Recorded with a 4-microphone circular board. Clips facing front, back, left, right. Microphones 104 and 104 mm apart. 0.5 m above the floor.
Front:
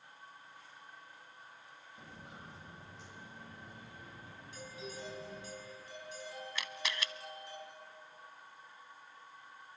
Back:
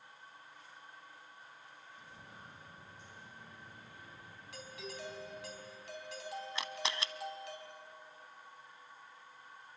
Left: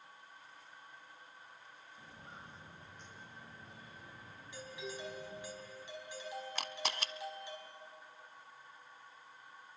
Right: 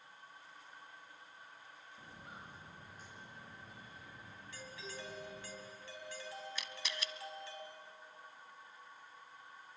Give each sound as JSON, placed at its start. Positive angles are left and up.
{"t": 2.0, "sound": "footsteps", "azimuth_deg": -10, "distance_m": 6.0}
{"t": 4.5, "sound": "a doorbell", "azimuth_deg": 165, "distance_m": 4.5}
{"t": 6.5, "sound": "a camera shutter", "azimuth_deg": 120, "distance_m": 0.7}